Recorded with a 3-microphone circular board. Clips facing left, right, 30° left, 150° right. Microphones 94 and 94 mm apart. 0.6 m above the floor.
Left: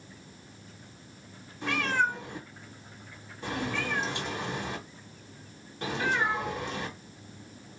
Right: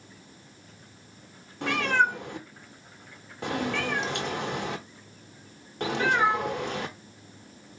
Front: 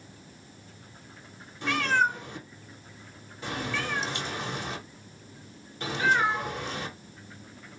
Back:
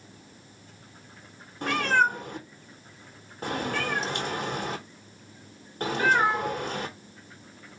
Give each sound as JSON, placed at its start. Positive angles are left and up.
{"t": 1.6, "sound": "a cat meowing", "azimuth_deg": -105, "distance_m": 0.8}